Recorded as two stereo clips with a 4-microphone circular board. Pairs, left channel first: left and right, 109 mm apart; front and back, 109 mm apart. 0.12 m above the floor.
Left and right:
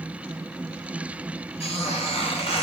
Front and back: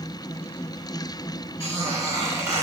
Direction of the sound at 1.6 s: 115° left.